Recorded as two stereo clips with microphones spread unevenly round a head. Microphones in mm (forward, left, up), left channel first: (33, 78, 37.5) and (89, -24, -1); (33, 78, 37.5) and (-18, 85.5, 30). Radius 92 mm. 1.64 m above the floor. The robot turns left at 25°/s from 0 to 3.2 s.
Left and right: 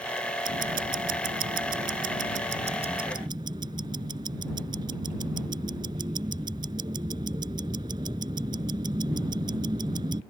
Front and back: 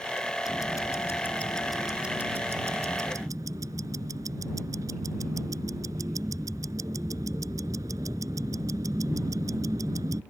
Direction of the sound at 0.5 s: 65° right.